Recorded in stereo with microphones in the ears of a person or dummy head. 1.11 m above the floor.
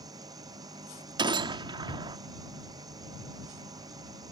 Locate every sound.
0.0 s an engine running: 25° right (ahead or behind)
1.2 s a gunshot: 25° right (ahead or behind)